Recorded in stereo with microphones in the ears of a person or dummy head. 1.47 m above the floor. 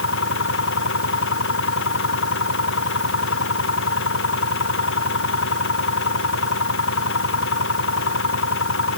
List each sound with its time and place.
0.0 s an engine running: 70° left (ahead or behind)